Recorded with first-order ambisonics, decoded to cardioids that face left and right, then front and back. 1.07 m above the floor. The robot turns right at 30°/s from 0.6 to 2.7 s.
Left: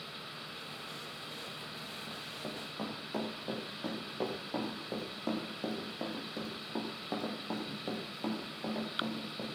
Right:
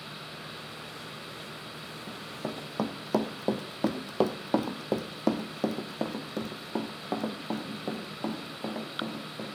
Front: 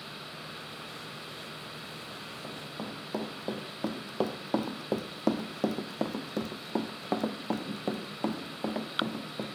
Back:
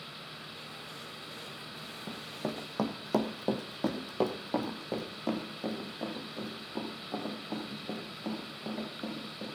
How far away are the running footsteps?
About 1.9 m.